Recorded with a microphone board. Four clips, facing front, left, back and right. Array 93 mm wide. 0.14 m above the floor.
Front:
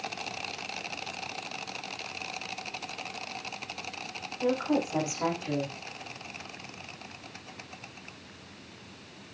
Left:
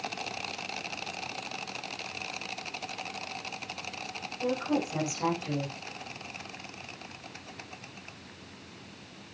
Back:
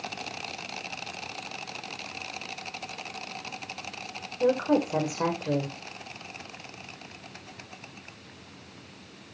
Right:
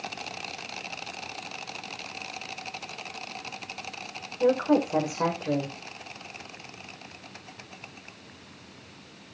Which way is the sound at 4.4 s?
130° right.